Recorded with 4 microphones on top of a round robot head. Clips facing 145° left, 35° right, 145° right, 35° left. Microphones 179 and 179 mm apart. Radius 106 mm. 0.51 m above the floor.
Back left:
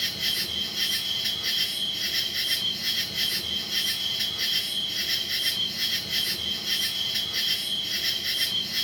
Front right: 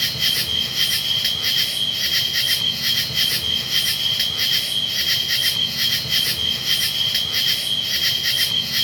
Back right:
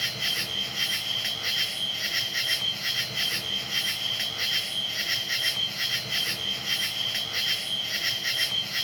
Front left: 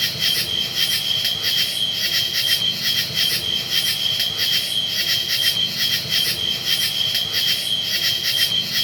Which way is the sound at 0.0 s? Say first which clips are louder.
Front right 5 dB, front left 5 dB; 15° right.